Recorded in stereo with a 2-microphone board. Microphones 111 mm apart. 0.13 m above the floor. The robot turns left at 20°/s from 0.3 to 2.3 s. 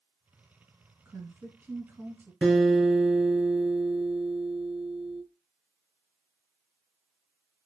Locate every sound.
1.1 s a woman speaking: 20° right (ahead or behind), 1.1 m; by 2.3 s 25° right (ahead or behind), 1.1 m
2.4 s a guitar: 5° left (ahead or behind), 1.6 m